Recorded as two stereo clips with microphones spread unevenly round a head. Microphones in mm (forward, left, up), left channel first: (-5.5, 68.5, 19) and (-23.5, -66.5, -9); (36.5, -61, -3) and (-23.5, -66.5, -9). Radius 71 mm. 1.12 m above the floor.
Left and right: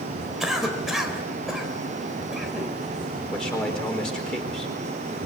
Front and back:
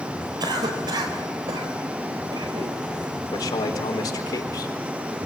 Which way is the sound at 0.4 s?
175° left.